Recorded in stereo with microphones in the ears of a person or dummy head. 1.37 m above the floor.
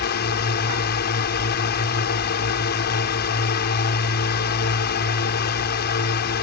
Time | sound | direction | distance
0.0 | a drone | 50° left (ahead or behind) | ?